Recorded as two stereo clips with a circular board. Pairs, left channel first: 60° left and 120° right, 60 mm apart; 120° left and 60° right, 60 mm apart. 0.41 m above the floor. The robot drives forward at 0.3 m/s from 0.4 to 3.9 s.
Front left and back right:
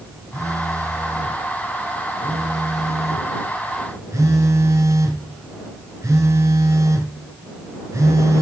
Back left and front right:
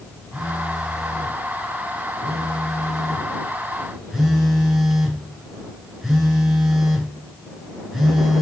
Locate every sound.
0.3 s a phone buzzing: 140° right, 2.5 m; by 8.4 s 155° right, 3.5 m